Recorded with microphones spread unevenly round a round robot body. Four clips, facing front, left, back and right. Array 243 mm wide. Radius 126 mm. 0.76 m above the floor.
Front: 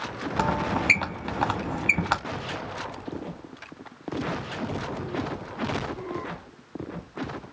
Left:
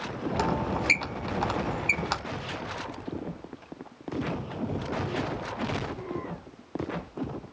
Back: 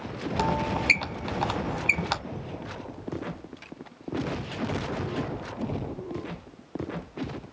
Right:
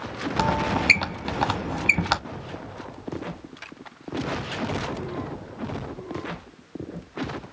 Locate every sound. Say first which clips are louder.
0.4 s a squeak: right 5 dB, front 1 dB; 40° right, 1.0 m